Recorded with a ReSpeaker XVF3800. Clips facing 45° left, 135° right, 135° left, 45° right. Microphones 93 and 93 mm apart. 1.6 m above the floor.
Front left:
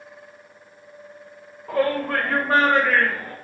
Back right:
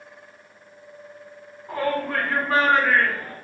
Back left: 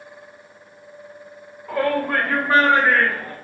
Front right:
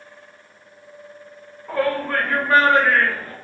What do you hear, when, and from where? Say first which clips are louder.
1.7 s a shout: front left 3 dB, back left 1 dB; 45° left, 1.5 m; by 3.3 s 75° left, 3 m